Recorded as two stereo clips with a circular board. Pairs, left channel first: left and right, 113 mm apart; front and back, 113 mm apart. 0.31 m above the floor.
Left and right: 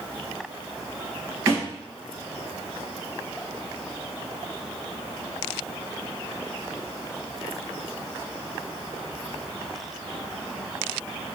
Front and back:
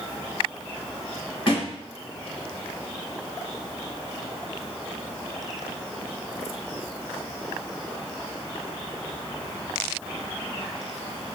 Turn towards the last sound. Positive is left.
turn(degrees=-35)